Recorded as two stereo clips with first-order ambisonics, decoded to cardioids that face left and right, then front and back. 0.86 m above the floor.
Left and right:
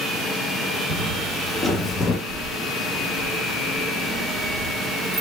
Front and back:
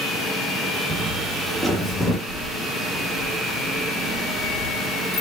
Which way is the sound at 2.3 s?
45° right.